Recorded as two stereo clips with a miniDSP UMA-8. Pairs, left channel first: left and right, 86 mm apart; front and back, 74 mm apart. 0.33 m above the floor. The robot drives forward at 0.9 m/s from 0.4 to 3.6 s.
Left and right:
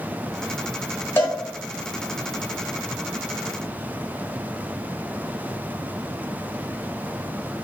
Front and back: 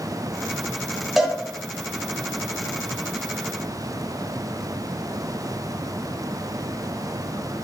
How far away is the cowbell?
About 1.3 m.